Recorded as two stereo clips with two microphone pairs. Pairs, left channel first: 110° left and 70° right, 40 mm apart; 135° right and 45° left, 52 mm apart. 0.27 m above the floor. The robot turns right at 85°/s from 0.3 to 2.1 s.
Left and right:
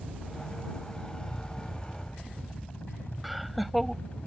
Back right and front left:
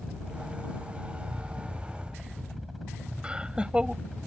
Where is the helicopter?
25° right; by 4.3 s 130° left.